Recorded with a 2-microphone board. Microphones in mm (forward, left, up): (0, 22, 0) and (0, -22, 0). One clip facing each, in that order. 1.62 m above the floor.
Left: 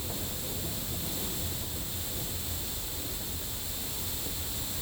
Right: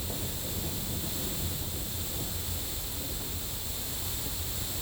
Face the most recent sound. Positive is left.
No sound to turn to.